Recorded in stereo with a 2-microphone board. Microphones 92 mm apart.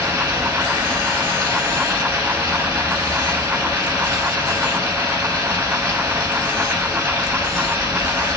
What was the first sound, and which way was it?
Running water, 25° right (ahead or behind).